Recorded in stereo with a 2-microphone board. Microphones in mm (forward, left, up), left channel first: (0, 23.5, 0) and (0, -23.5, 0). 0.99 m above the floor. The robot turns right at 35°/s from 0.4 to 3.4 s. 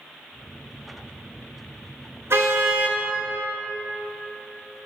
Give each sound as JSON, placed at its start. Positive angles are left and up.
{"t": 2.3, "sound": "a car horn", "side_deg": -65, "distance_m": 5.0}